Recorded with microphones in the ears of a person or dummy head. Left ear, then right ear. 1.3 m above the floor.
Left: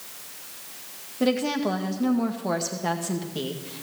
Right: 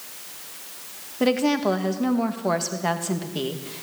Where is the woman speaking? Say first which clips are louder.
Right 3 dB; 15° right (ahead or behind), 1.9 m.